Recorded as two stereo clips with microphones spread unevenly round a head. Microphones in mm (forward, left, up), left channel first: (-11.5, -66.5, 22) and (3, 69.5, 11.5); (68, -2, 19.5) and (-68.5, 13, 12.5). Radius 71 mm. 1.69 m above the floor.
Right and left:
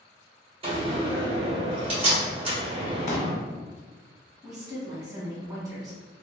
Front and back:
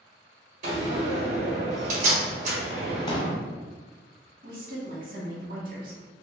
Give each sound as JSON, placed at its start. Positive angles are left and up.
{"t": 0.6, "sound": "a door slam", "azimuth_deg": 135, "distance_m": 1.4}
{"t": 3.1, "sound": "a pop", "azimuth_deg": -65, "distance_m": 0.7}
{"t": 4.4, "sound": "a woman speaking", "azimuth_deg": 150, "distance_m": 1.3}